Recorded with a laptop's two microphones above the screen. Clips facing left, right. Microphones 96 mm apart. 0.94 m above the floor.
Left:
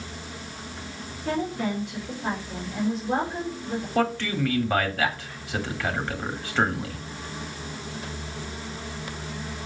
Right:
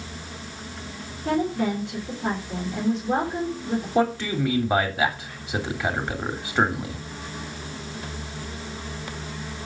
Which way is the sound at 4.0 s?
15° right (ahead or behind).